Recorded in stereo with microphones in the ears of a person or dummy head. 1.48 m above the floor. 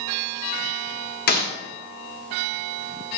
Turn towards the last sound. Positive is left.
turn(degrees=45)  # may be behind; listen again after turning